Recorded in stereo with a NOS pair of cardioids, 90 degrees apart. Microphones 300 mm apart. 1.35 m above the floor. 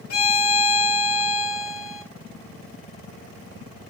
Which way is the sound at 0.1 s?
55° left.